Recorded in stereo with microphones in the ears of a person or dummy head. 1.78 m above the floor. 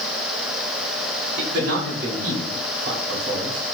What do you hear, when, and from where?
1.4 s a man speaking: 55° right (ahead or behind), 0.6 m; by 3.8 s 65° right (ahead or behind), 1.8 m